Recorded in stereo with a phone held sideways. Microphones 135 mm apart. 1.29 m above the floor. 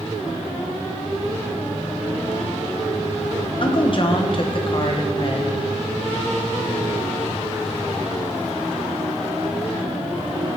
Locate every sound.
3.6 s a woman speaking: 45° left (ahead or behind), 1.1 m